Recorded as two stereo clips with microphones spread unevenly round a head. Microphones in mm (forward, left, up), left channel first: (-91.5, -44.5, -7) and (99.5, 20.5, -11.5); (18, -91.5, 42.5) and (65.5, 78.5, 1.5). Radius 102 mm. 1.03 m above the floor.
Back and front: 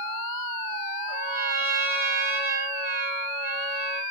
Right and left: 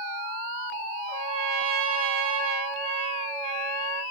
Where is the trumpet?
170° left, 1.4 m.